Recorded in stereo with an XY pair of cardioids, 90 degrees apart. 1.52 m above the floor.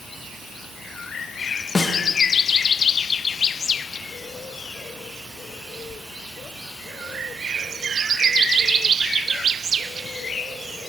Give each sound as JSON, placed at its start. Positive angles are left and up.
{"t": 1.8, "sound": "a snare drum", "azimuth_deg": 25, "distance_m": 0.9}